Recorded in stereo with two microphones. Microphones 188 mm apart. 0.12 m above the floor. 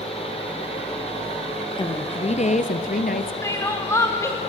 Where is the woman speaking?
25° left (ahead or behind), 2 m; by 3.3 s 55° left (ahead or behind), 1.8 m.